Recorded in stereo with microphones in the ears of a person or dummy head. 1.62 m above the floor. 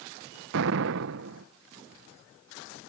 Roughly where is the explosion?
Right.